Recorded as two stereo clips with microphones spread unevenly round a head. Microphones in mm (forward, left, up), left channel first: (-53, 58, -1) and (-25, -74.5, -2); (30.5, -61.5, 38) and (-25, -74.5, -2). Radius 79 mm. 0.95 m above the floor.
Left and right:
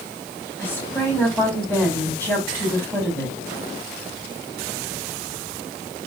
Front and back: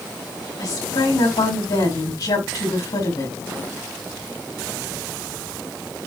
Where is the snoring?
I don't hear snoring.